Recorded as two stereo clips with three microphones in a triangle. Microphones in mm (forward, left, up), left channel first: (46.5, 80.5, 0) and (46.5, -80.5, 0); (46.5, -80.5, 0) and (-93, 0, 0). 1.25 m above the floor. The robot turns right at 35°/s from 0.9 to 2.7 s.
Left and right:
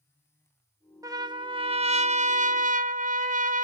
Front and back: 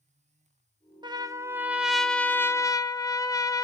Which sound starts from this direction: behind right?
A trumpet, at 1.0 s.